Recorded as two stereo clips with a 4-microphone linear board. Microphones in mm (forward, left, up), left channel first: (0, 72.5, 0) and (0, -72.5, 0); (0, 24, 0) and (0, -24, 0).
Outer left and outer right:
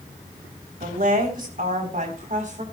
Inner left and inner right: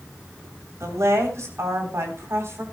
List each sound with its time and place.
0.8 s a woman speaking: 70° right (ahead or behind), 3.5 m; by 2.6 s 55° right (ahead or behind), 4 m